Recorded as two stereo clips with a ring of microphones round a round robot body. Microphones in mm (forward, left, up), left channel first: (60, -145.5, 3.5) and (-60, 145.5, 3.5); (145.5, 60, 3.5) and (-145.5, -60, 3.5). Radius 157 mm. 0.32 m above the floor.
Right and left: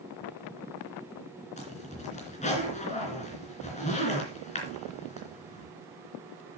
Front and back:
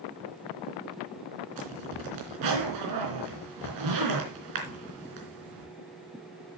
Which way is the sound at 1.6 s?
135° right.